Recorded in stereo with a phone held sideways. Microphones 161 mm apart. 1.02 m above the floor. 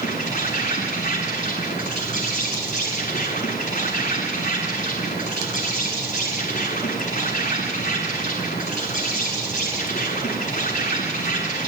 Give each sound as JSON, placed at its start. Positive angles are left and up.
{"t": 0.0, "sound": "an insect", "side_deg": 50, "distance_m": 8.5}